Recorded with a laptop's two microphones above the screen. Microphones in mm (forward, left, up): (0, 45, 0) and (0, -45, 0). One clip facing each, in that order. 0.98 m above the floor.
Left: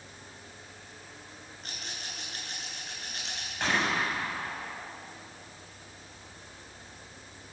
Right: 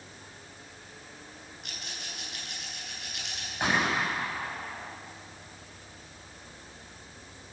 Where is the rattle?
35° left (ahead or behind), 8.5 m.